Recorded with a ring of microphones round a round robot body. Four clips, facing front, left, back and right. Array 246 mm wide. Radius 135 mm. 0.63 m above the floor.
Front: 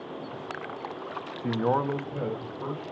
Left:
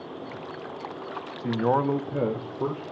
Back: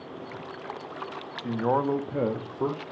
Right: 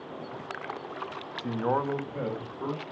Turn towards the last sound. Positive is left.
turn(degrees=145)